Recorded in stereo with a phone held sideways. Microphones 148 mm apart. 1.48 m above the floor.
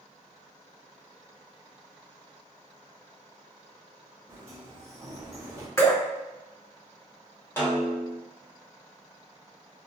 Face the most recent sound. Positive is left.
turn(degrees=15)  # may be behind; listen again after turning